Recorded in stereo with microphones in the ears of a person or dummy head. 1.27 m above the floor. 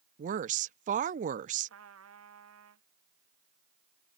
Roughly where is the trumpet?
Right.